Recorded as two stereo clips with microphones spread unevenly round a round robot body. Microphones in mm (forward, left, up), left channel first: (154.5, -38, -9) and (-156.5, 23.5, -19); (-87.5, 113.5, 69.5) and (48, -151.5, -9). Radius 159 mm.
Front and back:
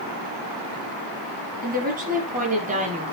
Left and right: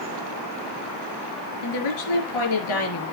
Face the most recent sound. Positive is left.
turn(degrees=100)